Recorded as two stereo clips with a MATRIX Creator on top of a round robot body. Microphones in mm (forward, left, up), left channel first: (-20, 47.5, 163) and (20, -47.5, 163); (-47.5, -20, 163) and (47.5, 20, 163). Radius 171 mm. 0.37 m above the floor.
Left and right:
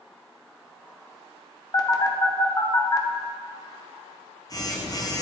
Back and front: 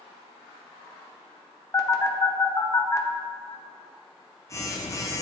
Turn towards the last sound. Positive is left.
turn(degrees=155)